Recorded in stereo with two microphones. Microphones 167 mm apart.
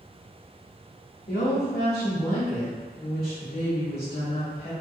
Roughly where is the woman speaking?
Left.